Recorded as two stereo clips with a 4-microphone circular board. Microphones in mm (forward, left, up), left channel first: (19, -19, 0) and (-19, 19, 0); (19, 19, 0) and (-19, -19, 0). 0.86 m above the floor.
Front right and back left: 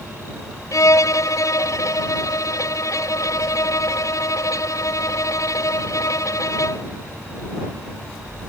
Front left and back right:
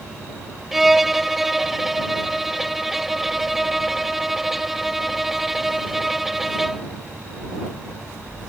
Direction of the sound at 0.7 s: 50° right.